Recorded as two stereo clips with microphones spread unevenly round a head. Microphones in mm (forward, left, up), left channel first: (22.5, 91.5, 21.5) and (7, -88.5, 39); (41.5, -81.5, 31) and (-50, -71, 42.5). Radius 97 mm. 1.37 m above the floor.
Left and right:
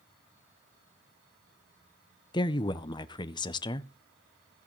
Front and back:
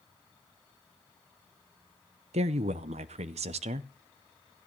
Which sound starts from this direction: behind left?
A woman speaking, at 2.3 s.